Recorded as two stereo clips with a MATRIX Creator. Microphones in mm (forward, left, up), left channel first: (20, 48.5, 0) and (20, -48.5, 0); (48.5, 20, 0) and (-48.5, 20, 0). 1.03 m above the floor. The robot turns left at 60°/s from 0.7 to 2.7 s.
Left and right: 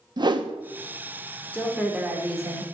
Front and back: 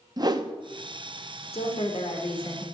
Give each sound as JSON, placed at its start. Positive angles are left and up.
{"t": 0.2, "sound": "a whoosh", "azimuth_deg": -130, "distance_m": 0.7}
{"t": 1.5, "sound": "a woman speaking", "azimuth_deg": 15, "distance_m": 2.5}